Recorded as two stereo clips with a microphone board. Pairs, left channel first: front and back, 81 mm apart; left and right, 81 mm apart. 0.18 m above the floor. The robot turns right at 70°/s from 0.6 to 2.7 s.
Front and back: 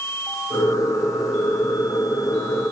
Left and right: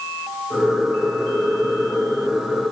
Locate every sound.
Only background noise.